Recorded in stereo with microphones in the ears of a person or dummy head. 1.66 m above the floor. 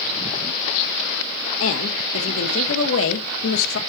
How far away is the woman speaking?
About 1.7 m.